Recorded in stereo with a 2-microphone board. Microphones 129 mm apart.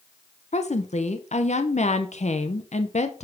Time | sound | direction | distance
0.5 | a woman speaking | 60° left (ahead or behind) | 0.6 m